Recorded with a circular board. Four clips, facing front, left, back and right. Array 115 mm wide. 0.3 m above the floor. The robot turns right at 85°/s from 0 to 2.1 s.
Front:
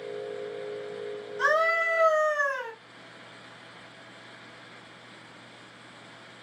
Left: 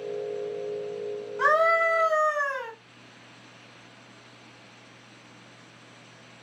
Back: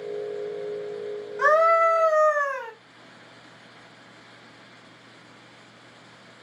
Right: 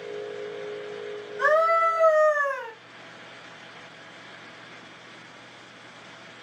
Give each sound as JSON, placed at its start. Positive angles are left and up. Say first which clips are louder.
{"t": 1.4, "sound": "a scream", "louder": "right 1 dB, back 7 dB", "azimuth_deg": 175, "distance_m": 1.7}